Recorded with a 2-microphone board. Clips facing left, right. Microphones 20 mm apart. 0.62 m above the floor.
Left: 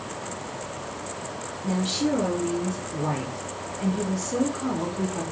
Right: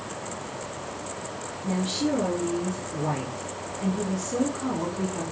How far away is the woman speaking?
About 0.9 m.